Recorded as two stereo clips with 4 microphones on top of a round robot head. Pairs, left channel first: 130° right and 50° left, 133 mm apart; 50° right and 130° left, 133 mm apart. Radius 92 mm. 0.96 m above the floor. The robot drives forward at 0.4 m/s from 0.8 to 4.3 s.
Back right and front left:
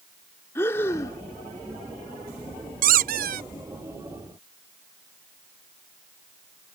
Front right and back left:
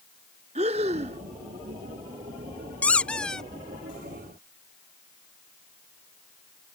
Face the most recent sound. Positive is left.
turn(degrees=50)